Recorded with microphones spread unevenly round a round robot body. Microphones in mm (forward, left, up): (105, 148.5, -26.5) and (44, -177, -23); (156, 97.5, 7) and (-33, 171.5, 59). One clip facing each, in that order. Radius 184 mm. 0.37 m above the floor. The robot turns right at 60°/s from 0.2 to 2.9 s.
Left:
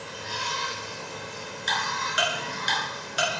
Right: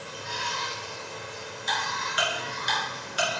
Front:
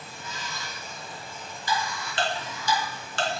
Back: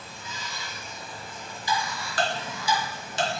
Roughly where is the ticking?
Ahead.